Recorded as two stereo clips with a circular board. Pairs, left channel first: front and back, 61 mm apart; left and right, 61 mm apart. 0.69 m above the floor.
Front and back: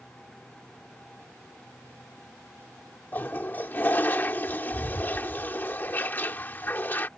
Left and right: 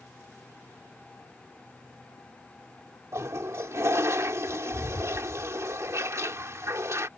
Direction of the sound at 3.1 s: 55° right.